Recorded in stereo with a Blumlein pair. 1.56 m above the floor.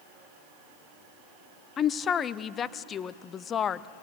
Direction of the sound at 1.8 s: 25° left.